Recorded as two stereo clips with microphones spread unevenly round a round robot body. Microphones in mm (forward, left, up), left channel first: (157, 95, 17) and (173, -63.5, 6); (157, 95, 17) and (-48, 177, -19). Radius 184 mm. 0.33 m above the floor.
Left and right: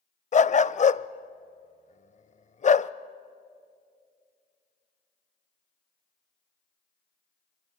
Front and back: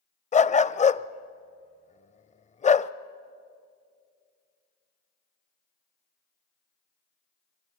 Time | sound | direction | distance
0.3 | a dog barking | 45° left | 0.6 m